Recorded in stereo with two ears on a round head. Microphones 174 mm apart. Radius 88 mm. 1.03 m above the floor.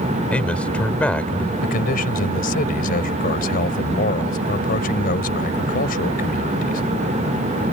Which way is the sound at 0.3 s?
5° left (ahead or behind).